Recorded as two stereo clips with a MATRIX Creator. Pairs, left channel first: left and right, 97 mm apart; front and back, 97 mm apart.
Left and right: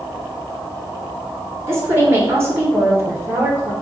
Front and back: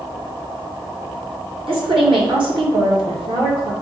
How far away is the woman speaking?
About 1.3 m.